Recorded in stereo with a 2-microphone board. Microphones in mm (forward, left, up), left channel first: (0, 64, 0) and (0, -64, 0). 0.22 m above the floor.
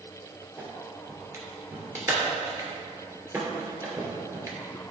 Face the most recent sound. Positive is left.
turn(degrees=-20)  # may be behind; listen again after turning